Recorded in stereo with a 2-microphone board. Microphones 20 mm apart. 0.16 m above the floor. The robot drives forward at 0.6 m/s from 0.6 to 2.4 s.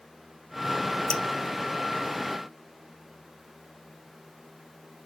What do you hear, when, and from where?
1.1 s dripping: 45° left (ahead or behind), 1.0 m; by 1.2 s 50° left (ahead or behind), 1.0 m